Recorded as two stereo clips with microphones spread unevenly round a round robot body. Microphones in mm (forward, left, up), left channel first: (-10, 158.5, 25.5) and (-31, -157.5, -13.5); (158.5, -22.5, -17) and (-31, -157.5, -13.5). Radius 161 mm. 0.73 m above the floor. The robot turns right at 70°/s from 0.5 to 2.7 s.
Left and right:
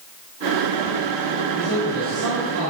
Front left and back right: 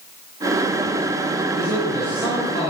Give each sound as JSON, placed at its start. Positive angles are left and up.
{"t": 1.6, "sound": "a man speaking", "azimuth_deg": -100, "distance_m": 3.5}